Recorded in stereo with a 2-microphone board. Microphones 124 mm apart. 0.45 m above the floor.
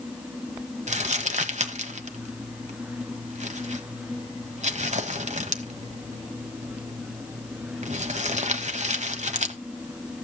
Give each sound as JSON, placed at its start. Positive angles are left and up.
{"t": 0.9, "sound": "crumpling", "side_deg": -65, "distance_m": 1.2}